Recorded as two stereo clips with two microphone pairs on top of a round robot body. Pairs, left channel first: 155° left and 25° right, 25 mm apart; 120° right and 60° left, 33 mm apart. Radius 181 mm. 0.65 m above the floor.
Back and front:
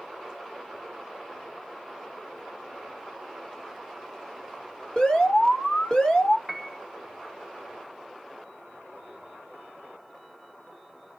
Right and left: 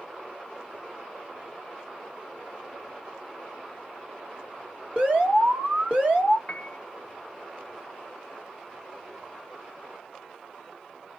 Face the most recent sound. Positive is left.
turn(degrees=-120)